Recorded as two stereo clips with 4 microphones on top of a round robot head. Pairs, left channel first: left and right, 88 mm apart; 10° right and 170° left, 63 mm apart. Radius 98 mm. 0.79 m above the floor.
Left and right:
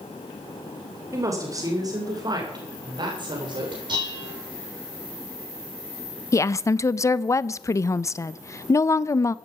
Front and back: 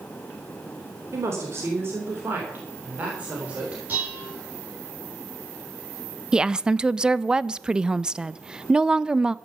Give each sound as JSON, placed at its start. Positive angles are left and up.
{"t": 1.1, "sound": "a woman speaking", "azimuth_deg": -145, "distance_m": 3.5}
{"t": 3.9, "sound": "dishes clattering", "azimuth_deg": -125, "distance_m": 6.5}
{"t": 6.3, "sound": "a woman speaking", "azimuth_deg": 105, "distance_m": 0.6}